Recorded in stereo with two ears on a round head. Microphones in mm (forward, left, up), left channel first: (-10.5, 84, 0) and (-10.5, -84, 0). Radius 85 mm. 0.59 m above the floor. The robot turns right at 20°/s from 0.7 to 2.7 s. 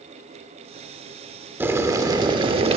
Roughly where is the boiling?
Centre.